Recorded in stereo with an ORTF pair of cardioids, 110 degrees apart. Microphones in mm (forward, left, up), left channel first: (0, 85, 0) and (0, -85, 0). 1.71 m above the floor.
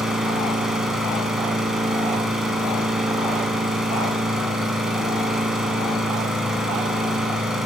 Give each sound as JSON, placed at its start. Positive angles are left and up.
{"t": 0.0, "sound": "an engine running", "azimuth_deg": -5, "distance_m": 7.5}